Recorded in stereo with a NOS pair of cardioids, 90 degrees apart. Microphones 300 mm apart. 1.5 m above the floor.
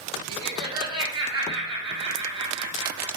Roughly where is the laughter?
Ahead.